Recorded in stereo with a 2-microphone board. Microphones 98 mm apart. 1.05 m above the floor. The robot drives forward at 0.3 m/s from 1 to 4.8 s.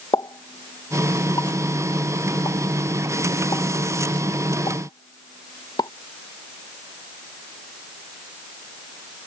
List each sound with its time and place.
0.1 s a pop: 45° left (ahead or behind)